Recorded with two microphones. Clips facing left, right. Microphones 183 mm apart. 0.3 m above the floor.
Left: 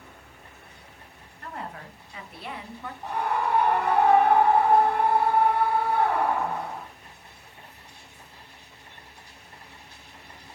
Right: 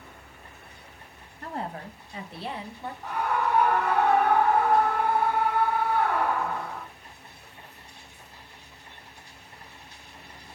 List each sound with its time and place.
1.4 s a woman speaking: 35° right (ahead or behind), 2 m; by 2.9 s 25° right (ahead or behind), 1.4 m
3.0 s a scream: 30° left (ahead or behind), 2.0 m